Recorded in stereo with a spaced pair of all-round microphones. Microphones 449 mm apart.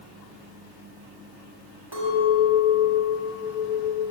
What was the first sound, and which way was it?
A clink, 75° right (ahead or behind).